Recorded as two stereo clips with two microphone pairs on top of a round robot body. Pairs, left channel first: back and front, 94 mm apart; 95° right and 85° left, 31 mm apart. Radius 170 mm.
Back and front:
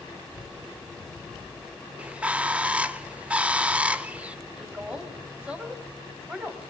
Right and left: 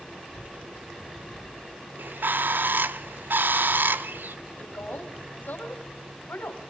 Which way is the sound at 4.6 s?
80° right.